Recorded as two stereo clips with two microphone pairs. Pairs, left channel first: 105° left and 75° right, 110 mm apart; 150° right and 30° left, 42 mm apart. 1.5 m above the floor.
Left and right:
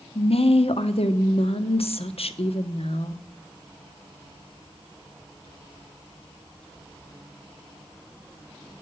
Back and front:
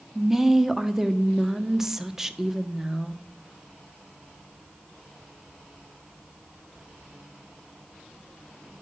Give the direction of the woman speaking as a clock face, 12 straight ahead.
8 o'clock.